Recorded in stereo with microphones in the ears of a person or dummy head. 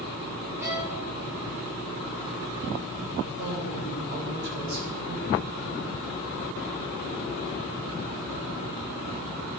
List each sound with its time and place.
0.6 s a violin: 15° right (ahead or behind), 7 m
3.2 s a man speaking: 50° right (ahead or behind), 7.5 m